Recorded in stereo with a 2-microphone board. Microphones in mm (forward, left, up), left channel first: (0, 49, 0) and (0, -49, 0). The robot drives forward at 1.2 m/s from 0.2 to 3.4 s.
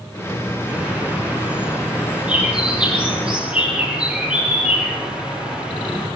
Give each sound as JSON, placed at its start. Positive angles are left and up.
{"t": 0.7, "sound": "a bird", "side_deg": -20, "distance_m": 8.5}